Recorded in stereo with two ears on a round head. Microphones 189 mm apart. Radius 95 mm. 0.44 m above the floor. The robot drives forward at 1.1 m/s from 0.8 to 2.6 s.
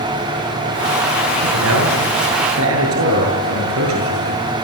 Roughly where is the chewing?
No chewing in this recording.